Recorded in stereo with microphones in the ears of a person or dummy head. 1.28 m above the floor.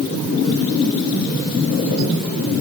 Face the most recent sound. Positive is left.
No sound to turn to.